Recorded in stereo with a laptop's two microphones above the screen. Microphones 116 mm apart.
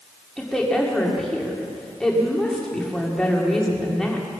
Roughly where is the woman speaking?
Centre.